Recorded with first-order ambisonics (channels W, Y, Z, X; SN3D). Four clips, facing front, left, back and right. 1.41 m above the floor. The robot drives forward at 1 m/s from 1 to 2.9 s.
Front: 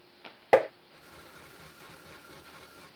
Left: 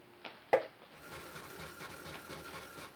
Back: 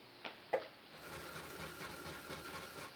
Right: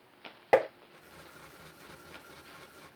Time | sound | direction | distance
0.5 | tapping | 20° right | ?